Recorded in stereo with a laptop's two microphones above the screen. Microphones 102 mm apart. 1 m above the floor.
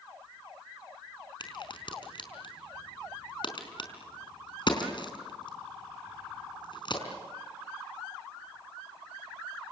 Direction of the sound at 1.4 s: 55° left (ahead or behind).